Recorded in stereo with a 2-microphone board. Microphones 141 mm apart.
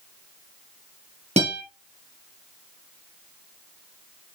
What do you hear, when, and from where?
1.4 s a guitar: 50° right (ahead or behind), 3 m